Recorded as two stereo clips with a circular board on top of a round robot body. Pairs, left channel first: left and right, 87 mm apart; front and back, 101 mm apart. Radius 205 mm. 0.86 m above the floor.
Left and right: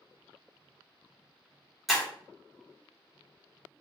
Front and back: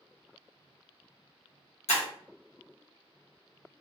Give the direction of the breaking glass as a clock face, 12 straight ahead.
12 o'clock.